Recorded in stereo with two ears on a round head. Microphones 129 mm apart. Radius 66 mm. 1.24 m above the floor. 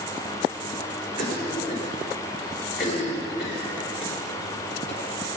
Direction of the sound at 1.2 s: 45° left (ahead or behind).